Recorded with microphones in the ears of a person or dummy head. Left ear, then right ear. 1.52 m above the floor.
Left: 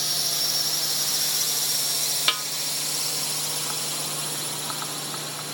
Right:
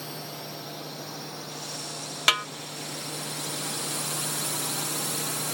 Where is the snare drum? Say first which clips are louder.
Right 3 dB; 5° right (ahead or behind).